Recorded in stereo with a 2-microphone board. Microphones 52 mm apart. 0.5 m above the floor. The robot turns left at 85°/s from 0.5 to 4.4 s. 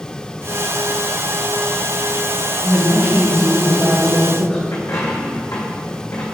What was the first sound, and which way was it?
A woman speaking, 45° right.